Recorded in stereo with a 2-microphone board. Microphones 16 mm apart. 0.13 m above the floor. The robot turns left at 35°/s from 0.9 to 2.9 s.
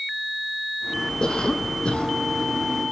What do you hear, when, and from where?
1.2 s a cough: 130° left, 4 m; by 2.2 s 100° left, 4 m